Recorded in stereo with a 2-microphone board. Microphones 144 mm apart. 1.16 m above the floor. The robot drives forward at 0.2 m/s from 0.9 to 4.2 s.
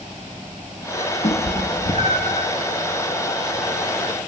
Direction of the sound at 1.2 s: 60° left (ahead or behind).